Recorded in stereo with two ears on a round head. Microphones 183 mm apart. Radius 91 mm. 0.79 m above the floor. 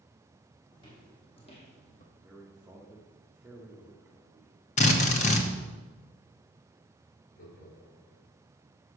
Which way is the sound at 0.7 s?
25° left (ahead or behind).